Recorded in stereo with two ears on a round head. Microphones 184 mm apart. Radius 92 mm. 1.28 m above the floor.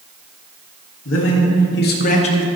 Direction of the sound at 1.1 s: 75° left (ahead or behind).